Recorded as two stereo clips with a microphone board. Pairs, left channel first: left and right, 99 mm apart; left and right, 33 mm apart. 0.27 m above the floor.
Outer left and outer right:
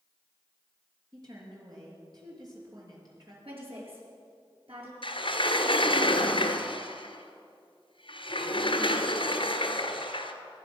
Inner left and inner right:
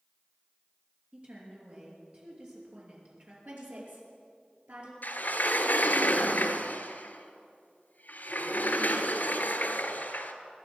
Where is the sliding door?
60° left (ahead or behind), 1.4 m.